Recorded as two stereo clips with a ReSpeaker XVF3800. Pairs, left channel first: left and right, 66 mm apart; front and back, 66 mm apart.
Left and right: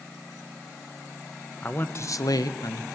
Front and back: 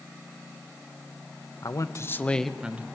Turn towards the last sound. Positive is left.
turn(degrees=115)